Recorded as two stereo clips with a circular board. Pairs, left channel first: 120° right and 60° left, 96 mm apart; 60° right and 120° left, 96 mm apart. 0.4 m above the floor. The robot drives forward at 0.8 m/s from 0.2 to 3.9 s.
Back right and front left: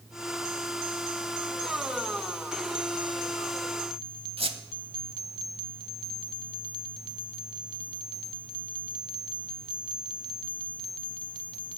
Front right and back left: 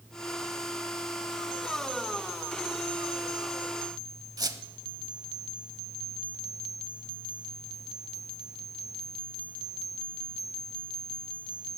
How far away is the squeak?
About 0.8 m.